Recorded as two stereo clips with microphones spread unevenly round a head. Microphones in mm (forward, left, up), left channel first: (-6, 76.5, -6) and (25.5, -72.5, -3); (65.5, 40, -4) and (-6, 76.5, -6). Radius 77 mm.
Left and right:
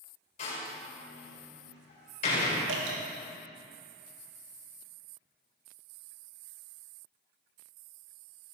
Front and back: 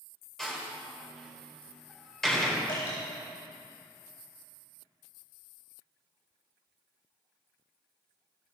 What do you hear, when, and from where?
0.4 s a door slam: 55° left, 5.5 m
2.7 s dripping: 85° right, 4 m